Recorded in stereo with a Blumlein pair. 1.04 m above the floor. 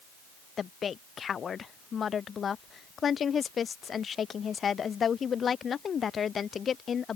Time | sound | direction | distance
0.6 | a woman speaking | 20° left | ?